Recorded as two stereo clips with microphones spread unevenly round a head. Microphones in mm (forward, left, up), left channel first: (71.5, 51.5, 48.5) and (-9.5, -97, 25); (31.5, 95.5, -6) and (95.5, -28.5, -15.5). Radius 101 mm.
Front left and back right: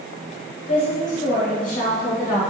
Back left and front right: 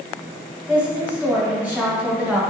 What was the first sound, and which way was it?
A woman speaking, 15° left.